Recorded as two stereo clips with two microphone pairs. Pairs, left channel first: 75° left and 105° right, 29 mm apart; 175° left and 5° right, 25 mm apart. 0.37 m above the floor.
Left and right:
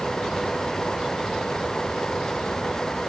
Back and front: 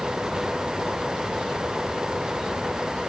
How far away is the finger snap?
No finger snap in this recording.